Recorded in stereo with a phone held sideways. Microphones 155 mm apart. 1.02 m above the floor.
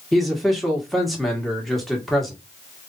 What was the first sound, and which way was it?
A man speaking, centre (ahead or behind).